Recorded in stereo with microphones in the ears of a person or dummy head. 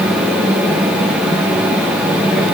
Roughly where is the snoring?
No snoring in this recording.